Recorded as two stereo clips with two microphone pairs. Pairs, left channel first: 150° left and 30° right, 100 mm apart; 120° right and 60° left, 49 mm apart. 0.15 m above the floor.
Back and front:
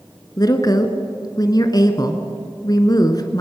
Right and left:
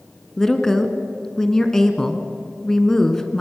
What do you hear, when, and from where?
0.4 s a woman speaking: 160° left, 1.8 m